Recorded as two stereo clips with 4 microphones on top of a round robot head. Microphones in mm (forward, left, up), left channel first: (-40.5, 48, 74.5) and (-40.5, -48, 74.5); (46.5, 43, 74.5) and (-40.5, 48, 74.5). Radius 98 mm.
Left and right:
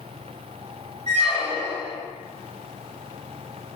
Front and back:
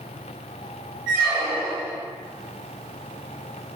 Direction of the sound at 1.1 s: 105° right.